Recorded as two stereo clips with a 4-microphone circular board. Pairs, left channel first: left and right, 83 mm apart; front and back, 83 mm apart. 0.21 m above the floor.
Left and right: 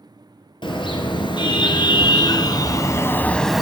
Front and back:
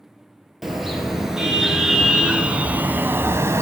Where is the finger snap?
No finger snap in this recording.